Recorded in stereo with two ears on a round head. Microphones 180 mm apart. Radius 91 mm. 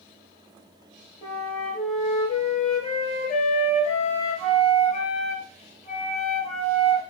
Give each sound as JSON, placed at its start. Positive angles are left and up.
{"t": 1.2, "sound": "a flute", "side_deg": 30, "distance_m": 3.0}